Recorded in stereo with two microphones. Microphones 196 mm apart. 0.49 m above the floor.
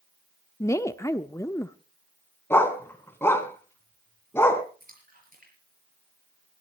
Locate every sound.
0.6 s a woman speaking: 15° left (ahead or behind), 0.7 m
2.5 s a dog barking: 15° left (ahead or behind), 1.5 m
4.8 s a splash: 50° right (ahead or behind), 6.5 m